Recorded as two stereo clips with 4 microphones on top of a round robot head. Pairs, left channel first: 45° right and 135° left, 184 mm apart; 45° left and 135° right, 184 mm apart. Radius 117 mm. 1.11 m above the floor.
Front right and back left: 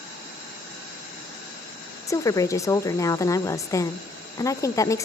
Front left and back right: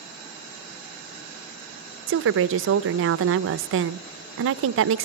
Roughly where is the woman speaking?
Behind right.